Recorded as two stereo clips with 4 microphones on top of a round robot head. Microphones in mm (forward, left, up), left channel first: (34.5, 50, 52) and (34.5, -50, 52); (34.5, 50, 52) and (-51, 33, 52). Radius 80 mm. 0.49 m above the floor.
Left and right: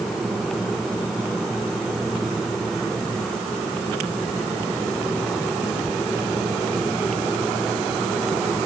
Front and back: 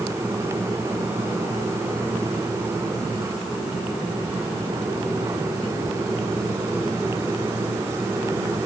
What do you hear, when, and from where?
Only background noise.